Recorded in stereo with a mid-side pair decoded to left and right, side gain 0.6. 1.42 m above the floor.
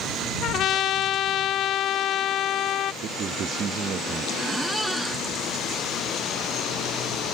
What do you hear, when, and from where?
0.4 s a trumpet: 55° left
3.0 s a man speaking: 45° right
4.4 s a squeak: 5° right